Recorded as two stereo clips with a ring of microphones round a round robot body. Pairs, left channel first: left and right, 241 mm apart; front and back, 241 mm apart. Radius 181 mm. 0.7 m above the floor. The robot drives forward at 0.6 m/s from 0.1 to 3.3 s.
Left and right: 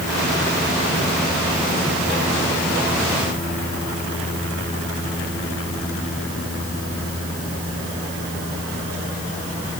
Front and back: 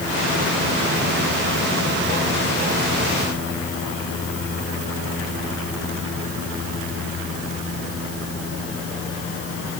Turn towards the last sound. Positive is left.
No sound to turn to.